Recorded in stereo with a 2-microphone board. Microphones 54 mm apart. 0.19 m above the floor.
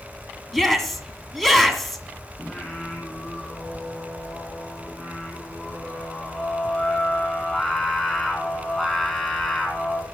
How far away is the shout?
About 1.8 m.